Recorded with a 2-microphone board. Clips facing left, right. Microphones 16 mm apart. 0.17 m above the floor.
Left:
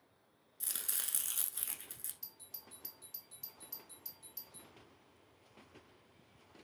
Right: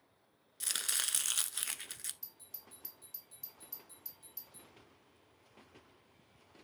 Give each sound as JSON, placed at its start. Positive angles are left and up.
{"t": 0.6, "sound": "chopping", "side_deg": -50, "distance_m": 0.5}
{"t": 2.2, "sound": "a doorbell", "side_deg": 15, "distance_m": 1.7}